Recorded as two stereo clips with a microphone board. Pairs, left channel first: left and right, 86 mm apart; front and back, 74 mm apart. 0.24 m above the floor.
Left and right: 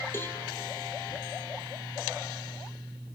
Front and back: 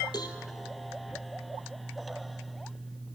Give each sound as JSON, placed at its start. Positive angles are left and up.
{"t": 0.1, "sound": "a cowbell", "azimuth_deg": 25, "distance_m": 1.7}